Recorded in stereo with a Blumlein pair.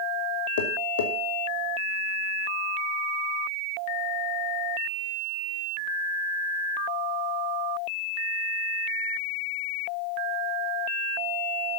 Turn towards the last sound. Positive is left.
turn(degrees=60)